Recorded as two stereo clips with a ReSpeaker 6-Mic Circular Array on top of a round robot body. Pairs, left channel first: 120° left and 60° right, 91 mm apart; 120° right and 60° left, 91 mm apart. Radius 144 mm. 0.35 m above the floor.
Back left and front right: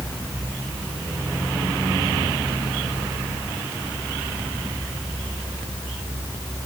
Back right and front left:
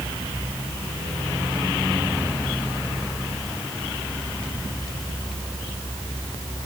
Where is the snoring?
I don't hear snoring.